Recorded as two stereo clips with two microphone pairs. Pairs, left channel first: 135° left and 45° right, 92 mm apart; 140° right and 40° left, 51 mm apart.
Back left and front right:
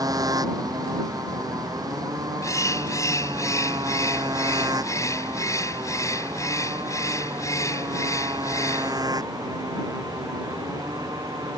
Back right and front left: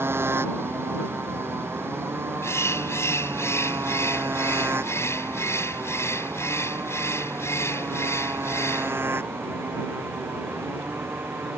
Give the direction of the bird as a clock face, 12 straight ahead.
6 o'clock.